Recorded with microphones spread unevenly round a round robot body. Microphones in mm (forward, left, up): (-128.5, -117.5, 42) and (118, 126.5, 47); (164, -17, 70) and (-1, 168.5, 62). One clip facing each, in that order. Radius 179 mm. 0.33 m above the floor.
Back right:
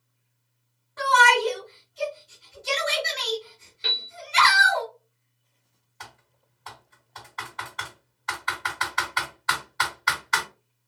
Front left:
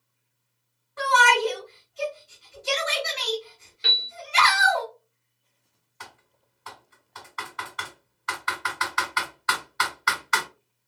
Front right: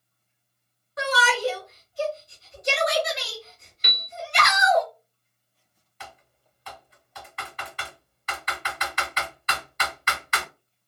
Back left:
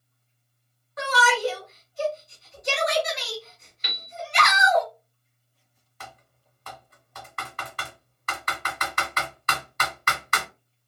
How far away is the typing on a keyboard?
About 2 m.